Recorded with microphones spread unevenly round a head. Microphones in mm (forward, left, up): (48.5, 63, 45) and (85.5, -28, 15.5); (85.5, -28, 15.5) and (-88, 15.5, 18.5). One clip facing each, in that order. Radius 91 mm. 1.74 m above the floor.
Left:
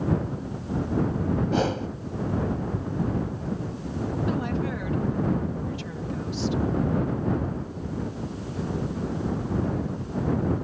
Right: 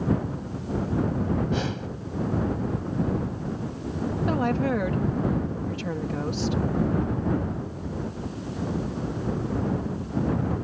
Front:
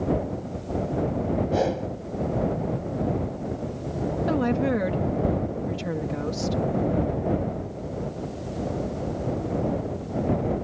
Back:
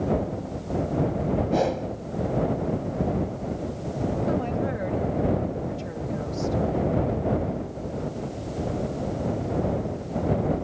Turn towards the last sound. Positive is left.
turn(degrees=-30)